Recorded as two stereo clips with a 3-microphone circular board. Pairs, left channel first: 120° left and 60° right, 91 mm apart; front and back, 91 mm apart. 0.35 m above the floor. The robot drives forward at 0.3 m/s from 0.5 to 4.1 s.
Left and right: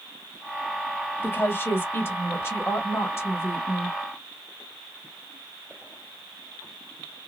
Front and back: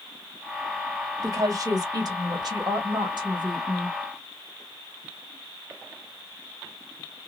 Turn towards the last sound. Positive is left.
turn(degrees=175)